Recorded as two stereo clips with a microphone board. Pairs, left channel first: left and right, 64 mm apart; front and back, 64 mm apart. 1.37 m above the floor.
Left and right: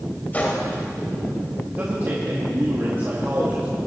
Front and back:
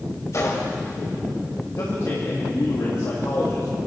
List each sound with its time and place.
0.3 s a gunshot: 35° left, 2 m
1.8 s a man speaking: 35° right, 2.0 m